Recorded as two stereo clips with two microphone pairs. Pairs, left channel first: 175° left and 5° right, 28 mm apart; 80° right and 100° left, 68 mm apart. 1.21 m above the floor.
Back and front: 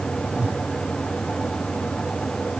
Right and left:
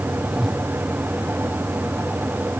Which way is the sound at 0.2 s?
15° left.